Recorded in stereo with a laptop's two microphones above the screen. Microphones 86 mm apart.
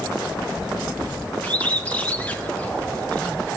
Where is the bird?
20° left (ahead or behind), 0.7 m.